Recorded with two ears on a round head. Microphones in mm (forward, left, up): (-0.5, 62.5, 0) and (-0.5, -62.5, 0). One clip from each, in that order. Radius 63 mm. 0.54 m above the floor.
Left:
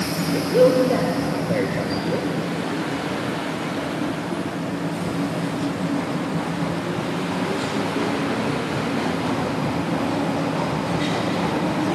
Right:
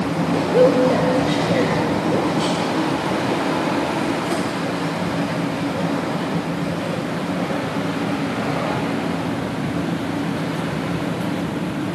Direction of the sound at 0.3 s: 5° right (ahead or behind).